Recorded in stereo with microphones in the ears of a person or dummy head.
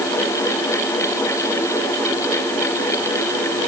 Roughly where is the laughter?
I don't hear laughter.